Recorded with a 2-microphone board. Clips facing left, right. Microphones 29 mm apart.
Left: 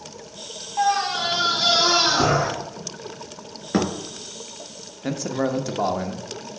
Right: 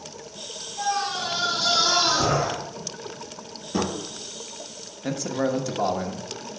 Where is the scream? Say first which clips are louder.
Left 5 dB; 75° left (ahead or behind), 3 m; by 2.5 s 80° left, 5 m.